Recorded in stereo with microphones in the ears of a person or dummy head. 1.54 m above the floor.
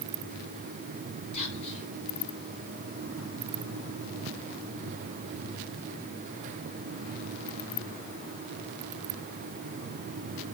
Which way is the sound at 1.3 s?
35° left (ahead or behind).